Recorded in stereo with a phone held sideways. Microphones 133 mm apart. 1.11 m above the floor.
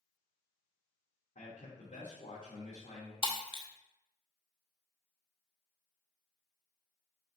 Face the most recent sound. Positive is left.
turn(degrees=40)  # may be behind; listen again after turning